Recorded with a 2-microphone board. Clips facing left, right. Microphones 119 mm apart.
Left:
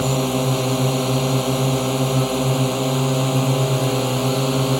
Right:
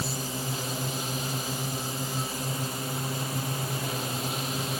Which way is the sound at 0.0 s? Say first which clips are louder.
Left 14 dB; 80° left.